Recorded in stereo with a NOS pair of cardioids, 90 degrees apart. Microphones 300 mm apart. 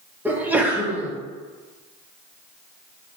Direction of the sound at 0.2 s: 5° right.